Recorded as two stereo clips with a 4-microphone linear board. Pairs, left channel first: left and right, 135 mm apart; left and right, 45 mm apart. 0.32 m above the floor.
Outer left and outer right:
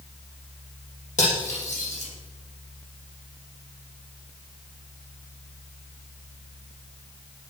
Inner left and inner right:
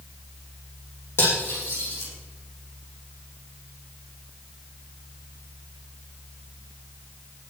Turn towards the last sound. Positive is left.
turn(degrees=65)  # may be behind; listen again after turning